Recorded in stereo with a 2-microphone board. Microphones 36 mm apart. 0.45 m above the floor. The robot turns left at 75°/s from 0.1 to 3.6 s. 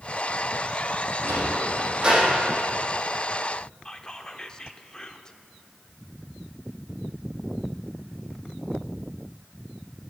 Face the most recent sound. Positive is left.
turn(degrees=20)  # may be behind; listen again after turning